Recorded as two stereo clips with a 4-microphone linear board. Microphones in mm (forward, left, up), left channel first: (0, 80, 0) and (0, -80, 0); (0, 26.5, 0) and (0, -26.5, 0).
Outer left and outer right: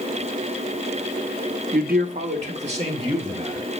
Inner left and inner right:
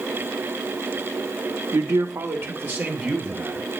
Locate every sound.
1.7 s a man speaking: 65° right (ahead or behind), 0.9 m; by 3.6 s 35° right (ahead or behind), 3 m